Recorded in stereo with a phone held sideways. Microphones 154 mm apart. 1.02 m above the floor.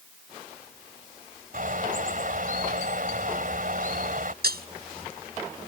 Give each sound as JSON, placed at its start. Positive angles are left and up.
{"t": 1.5, "sound": "a bird", "side_deg": -65}
{"t": 4.4, "sound": "breaking glass", "side_deg": -85}